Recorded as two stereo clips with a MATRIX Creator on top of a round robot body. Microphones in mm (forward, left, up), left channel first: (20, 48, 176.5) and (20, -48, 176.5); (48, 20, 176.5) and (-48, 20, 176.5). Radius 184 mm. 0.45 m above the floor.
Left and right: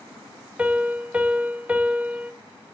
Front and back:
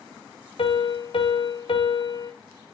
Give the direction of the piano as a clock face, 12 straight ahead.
12 o'clock.